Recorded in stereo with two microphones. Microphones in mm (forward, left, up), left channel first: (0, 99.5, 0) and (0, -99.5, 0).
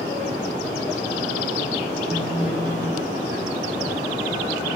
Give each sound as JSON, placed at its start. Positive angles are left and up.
{"t": 2.1, "sound": "a phone buzzing", "side_deg": 85, "distance_m": 2.0}